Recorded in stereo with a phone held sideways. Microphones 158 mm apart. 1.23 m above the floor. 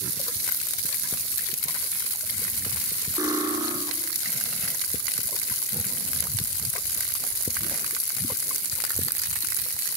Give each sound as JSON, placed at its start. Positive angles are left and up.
{"t": 3.2, "sound": "cutlery clinking", "side_deg": -25, "distance_m": 2.5}